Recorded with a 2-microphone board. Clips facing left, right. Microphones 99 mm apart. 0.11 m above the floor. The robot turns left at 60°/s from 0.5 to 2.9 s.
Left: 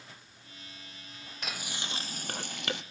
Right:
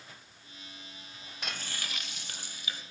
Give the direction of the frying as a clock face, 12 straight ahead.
6 o'clock.